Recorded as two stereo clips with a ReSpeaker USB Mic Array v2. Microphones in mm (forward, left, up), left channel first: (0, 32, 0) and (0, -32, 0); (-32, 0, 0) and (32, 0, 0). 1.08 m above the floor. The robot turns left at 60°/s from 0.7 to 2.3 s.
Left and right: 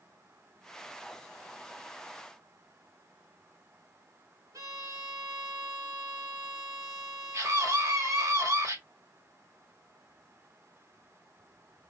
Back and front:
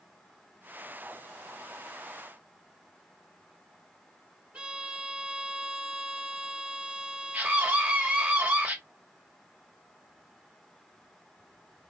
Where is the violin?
65° right, 2 m.